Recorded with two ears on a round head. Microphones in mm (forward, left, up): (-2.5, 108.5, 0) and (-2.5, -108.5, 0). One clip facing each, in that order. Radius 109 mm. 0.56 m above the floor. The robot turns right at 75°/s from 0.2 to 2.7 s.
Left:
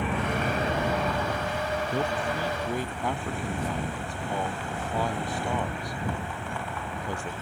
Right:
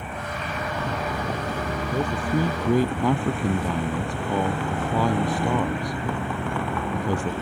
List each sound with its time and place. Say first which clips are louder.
0.0 s a vehicle: left 5 dB; 120° left; by 7.4 s 50° right
1.9 s a man speaking: right 8 dB; 5° right (ahead or behind); by 7.3 s 65° right (ahead or behind)